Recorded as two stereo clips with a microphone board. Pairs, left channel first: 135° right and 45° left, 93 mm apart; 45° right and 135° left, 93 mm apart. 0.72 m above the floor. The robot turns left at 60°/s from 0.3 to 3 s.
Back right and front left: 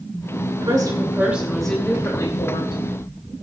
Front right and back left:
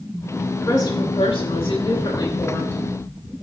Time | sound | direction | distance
0.6 | a woman speaking | 10° left | 3 m